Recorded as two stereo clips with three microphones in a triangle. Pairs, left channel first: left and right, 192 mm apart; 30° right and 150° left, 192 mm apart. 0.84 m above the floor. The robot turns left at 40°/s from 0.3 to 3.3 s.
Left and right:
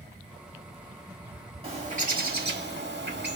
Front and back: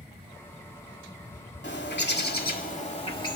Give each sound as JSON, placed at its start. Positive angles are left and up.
{"t": 1.6, "sound": "a bird", "azimuth_deg": -30, "distance_m": 1.2}